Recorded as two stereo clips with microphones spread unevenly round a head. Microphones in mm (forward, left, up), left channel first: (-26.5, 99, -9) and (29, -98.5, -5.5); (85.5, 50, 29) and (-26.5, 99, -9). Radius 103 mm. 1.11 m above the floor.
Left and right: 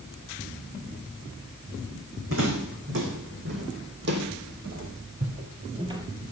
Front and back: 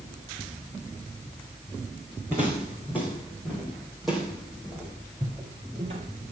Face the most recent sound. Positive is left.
turn(degrees=-155)